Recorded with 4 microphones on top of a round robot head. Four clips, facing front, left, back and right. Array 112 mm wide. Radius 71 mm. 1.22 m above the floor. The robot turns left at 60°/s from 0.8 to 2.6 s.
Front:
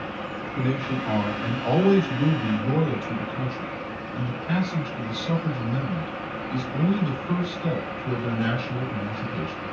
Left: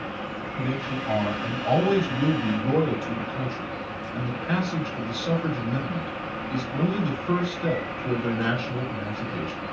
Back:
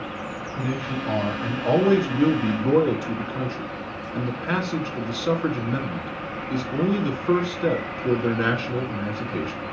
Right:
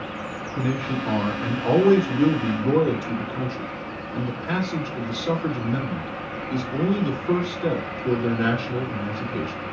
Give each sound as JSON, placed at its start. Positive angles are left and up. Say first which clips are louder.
{"t": 0.6, "sound": "a man speaking", "louder": "right 4 dB, front 2 dB", "azimuth_deg": -65, "distance_m": 2.5}